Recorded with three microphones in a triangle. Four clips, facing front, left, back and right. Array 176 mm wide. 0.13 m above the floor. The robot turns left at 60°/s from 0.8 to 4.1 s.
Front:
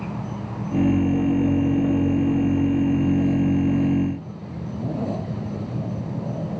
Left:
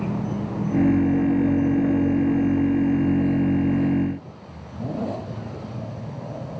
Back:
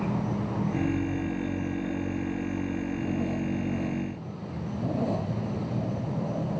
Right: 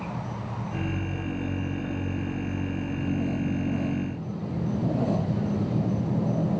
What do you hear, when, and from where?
0.0 s an insect: 110° left; by 6.6 s 90° right